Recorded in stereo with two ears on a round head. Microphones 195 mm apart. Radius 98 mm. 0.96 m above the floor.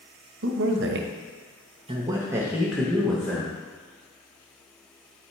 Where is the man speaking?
60° right (ahead or behind), 1.0 m; by 3.5 s 5° left (ahead or behind), 1.7 m.